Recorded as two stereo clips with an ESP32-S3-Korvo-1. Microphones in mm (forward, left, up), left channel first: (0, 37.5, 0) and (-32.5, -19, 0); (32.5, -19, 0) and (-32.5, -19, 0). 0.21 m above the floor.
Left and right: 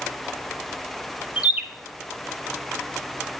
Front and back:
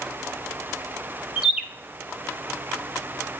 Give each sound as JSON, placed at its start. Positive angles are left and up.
{"t": 1.4, "sound": "a bird", "azimuth_deg": -120, "distance_m": 0.5}